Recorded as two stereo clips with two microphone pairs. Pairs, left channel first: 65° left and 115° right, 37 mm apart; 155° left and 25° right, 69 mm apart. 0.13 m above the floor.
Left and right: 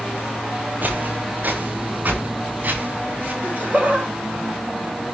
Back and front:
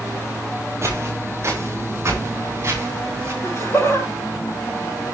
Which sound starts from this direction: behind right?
Laughter, at 3.4 s.